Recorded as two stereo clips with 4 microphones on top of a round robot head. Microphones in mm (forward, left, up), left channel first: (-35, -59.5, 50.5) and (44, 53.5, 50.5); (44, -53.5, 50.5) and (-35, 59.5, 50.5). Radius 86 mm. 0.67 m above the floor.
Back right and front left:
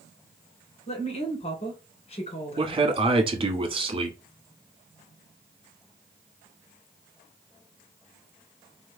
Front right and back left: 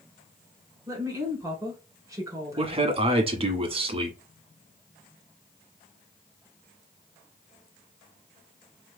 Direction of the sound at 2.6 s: 95° left.